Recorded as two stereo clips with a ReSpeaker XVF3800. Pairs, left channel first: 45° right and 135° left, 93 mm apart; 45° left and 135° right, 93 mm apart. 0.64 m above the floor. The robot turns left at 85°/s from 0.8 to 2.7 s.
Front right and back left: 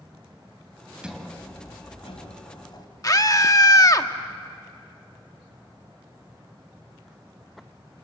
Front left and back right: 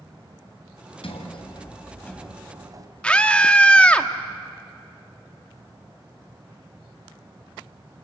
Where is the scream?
25° right, 1.3 m.